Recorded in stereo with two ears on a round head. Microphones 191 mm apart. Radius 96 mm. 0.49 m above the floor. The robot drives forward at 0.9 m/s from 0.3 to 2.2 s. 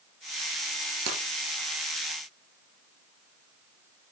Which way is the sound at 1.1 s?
85° right.